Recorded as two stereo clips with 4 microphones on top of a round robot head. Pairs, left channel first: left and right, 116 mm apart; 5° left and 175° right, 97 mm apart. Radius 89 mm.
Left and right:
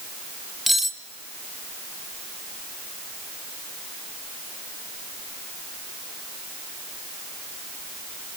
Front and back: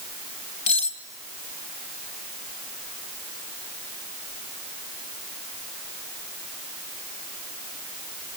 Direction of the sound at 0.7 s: Straight ahead.